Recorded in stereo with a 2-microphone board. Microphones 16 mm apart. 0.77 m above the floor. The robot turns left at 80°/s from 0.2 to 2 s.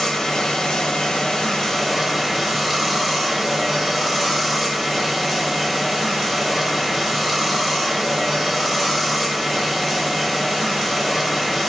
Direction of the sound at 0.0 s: 145° left.